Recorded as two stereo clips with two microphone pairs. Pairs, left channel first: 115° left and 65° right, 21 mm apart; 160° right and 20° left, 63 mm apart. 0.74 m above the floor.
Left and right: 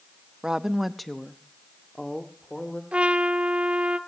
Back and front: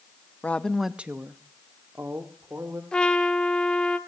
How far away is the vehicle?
No vehicle in this recording.